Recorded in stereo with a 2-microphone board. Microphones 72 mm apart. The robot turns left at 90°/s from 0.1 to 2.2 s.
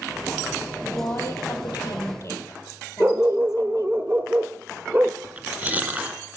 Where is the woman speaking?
165° left, 4 m; by 4.0 s 40° left, 4 m.